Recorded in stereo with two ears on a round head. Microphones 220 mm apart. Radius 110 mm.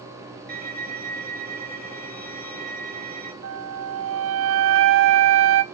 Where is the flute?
55° right (ahead or behind), 1.0 m.